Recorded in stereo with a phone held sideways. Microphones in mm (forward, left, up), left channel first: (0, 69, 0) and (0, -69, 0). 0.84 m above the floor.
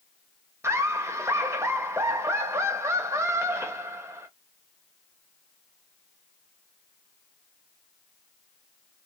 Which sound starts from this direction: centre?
Laughter, at 0.6 s.